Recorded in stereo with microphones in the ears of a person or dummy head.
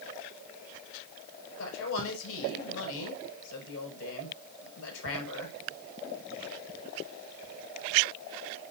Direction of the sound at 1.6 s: 85° left.